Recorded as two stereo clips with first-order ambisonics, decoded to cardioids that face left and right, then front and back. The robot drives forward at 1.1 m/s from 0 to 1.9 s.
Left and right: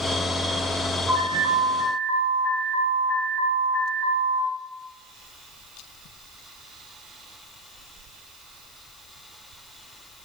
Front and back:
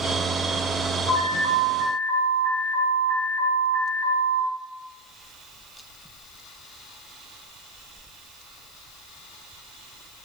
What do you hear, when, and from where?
1.1 s an alarm: 135° right, 4 m; by 4.5 s 145° right, 4.5 m